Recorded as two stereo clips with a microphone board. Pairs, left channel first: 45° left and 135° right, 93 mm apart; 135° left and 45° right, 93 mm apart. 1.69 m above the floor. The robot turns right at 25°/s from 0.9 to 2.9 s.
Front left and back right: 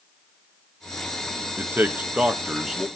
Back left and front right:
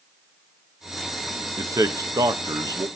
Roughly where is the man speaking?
Right.